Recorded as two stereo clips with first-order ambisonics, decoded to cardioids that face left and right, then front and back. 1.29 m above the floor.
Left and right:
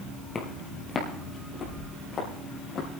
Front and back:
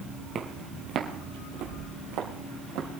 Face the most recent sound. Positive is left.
turn(degrees=150)